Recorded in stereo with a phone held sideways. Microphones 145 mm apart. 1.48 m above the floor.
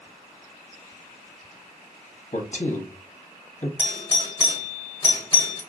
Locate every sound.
2.3 s a man speaking: 55° left (ahead or behind), 0.7 m
3.8 s a doorbell: 35° left (ahead or behind), 0.8 m